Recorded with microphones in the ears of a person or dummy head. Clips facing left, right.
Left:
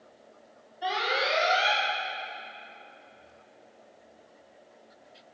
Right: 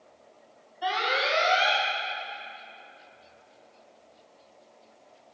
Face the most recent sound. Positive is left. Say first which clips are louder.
# right 1 dB
turn(degrees=0)  # may be behind; listen again after turning